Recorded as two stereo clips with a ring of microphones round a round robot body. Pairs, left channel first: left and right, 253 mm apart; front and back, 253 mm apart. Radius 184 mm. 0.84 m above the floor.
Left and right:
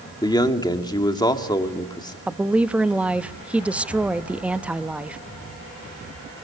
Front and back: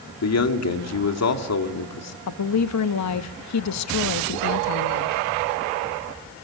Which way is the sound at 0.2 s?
15° left.